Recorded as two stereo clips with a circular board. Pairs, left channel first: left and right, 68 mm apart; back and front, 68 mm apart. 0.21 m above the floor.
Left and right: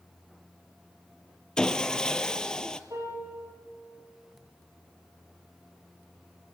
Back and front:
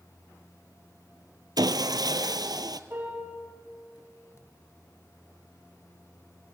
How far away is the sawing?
About 1.0 m.